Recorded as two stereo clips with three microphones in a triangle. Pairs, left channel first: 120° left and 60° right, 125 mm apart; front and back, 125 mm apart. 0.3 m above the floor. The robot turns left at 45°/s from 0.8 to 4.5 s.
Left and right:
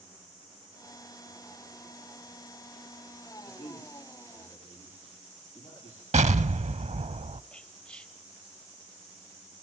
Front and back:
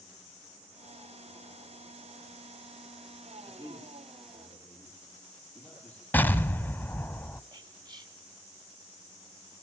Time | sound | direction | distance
3.4 | a man speaking | 130° left | 9 m
6.1 | an explosion | 75° right | 0.6 m
7.5 | whispering | 165° right | 1.2 m